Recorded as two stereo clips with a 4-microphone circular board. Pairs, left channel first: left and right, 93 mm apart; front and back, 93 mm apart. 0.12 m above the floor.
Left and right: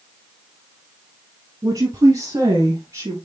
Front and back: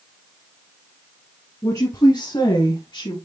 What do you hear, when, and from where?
1.6 s a woman speaking: 45° right, 1.9 m; by 3.2 s 30° right, 3 m